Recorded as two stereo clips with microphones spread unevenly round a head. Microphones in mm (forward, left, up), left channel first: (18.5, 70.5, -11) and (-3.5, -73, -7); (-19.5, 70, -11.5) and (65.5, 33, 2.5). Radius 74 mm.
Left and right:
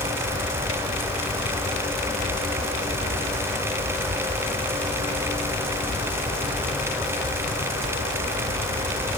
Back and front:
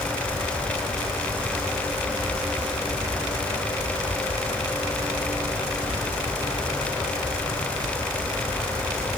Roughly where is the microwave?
No microwave in this recording.